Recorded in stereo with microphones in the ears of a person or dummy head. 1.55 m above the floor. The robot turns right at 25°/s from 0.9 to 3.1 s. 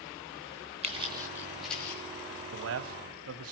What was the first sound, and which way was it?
Footsteps, 35° right (ahead or behind).